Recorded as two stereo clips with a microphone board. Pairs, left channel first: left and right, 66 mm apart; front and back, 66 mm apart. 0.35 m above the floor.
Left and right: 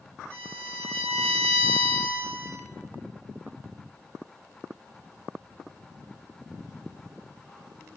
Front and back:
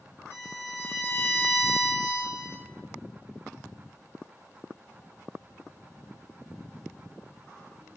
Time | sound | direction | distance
0.3 | a violin | 35° left | 1.5 m